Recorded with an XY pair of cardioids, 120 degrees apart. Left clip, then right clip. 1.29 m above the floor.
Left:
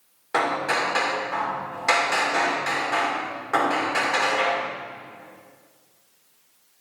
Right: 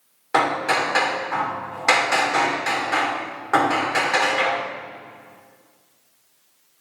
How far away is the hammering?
About 2 m.